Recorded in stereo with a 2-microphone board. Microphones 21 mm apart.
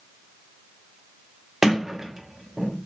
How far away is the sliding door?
About 0.8 m.